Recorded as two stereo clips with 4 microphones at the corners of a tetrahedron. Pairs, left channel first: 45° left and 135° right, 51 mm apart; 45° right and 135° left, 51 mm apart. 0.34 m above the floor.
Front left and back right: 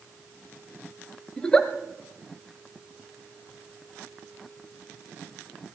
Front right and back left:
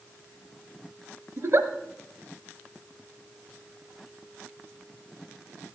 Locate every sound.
1.4 s a giggle: 120° left, 0.9 m